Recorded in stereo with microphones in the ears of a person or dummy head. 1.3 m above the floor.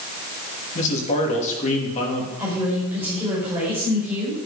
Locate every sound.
0.8 s a man speaking: 40° left (ahead or behind), 2.5 m
2.4 s a woman speaking: 10° right (ahead or behind), 6 m